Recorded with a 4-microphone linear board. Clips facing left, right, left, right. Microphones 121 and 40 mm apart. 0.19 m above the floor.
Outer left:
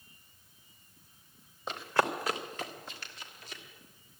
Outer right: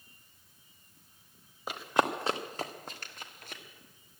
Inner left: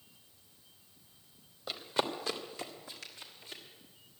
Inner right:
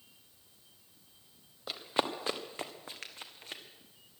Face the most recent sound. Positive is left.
turn(degrees=-55)  # may be behind; listen again after turning